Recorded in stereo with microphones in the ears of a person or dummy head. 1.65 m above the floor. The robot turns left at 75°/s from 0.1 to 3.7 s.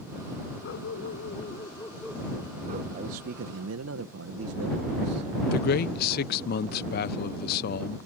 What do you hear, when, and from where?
0.6 s a dog barking: 110° left; by 2.8 s 55° right
2.9 s a man speaking: 35° right; by 5.3 s 90° right
5.5 s a man speaking: 60° left (ahead or behind)